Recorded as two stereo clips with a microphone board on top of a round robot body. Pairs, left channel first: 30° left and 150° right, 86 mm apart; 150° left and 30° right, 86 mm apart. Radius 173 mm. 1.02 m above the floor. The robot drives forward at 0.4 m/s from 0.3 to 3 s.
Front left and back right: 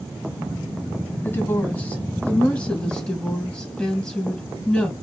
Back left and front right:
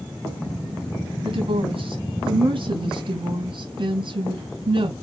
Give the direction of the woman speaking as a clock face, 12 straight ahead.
1 o'clock.